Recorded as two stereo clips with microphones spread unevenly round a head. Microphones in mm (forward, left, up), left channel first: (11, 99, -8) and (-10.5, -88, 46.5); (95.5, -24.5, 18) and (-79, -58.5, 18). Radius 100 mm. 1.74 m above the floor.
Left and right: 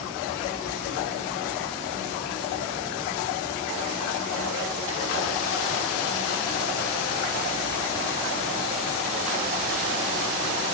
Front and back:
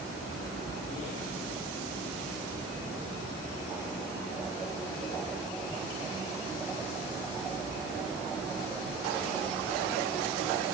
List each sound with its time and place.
Only background noise.